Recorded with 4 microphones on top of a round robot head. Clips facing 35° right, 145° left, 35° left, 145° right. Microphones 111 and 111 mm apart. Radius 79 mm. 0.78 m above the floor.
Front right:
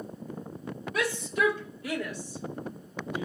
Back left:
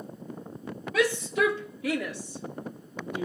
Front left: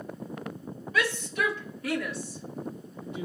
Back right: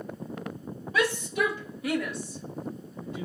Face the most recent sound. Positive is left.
turn(degrees=100)